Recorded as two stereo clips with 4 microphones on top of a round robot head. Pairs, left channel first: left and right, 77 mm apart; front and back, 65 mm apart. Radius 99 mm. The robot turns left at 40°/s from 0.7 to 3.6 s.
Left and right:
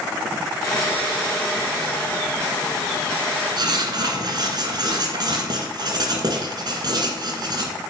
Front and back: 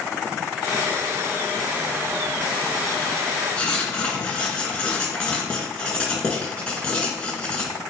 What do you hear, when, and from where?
3.6 s writing: 75° right, 1.7 m; by 7.7 s 80° right, 1.7 m